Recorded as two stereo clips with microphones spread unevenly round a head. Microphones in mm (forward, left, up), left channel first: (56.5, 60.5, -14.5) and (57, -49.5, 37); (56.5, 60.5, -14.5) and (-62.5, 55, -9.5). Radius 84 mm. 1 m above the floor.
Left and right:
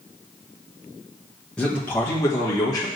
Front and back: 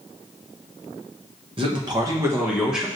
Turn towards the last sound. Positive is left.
turn(degrees=95)